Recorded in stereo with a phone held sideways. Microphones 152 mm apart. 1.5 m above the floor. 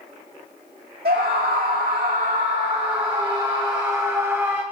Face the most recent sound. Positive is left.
turn(degrees=-15)  # may be behind; listen again after turning